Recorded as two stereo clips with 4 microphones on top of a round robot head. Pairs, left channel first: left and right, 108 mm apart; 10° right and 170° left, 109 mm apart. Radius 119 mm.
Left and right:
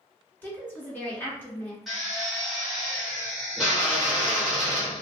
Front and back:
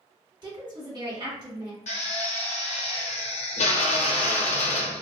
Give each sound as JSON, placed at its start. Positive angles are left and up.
{"t": 0.4, "sound": "a woman speaking", "azimuth_deg": 155, "distance_m": 1.7}
{"t": 1.9, "sound": "a drill", "azimuth_deg": 0, "distance_m": 0.6}